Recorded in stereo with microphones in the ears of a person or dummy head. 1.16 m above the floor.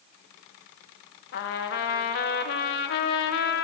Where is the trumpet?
55° left (ahead or behind), 0.7 m.